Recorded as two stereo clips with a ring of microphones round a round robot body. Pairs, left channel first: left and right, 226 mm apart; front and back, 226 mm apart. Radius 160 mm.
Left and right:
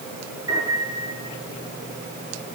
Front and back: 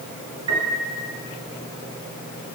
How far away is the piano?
About 7.5 m.